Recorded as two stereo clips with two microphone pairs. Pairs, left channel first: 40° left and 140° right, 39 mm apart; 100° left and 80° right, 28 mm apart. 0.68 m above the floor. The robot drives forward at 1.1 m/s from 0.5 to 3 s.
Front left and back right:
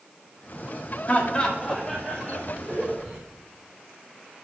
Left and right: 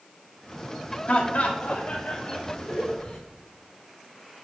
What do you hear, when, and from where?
1.1 s laughter: 75° left, 1.4 m; by 3.2 s 150° left, 2 m